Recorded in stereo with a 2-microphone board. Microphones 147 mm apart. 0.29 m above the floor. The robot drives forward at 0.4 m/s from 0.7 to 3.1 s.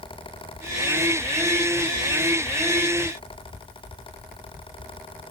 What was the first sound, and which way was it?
Only background noise.